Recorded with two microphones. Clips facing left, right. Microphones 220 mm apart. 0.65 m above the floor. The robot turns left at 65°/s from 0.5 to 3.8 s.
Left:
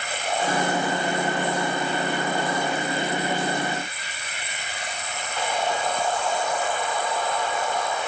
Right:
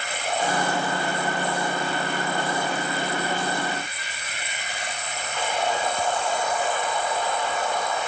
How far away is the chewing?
I don't hear chewing.